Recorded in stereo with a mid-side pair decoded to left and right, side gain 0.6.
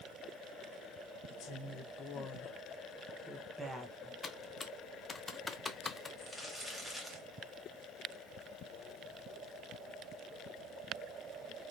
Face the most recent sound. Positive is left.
turn(degrees=-5)